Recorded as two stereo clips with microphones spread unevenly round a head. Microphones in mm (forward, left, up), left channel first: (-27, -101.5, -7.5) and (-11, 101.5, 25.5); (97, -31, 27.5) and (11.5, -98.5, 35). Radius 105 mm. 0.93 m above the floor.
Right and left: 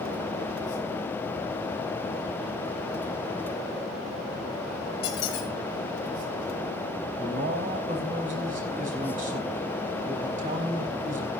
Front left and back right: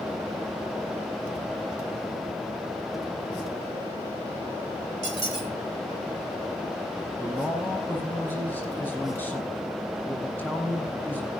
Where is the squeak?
120° right, 3 m.